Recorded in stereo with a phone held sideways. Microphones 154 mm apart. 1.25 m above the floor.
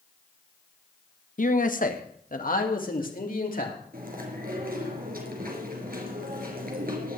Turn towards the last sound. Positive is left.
turn(degrees=-75)  # may be behind; listen again after turning